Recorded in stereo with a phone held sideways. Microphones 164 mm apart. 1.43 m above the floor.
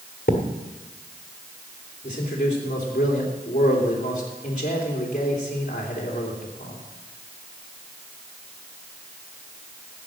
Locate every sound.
0.3 s a thud: 60° left (ahead or behind), 1.6 m
2.0 s a man speaking: 50° left (ahead or behind), 3 m